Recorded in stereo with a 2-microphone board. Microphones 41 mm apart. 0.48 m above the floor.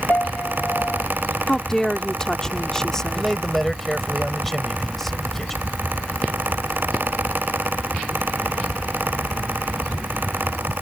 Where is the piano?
45° left (ahead or behind).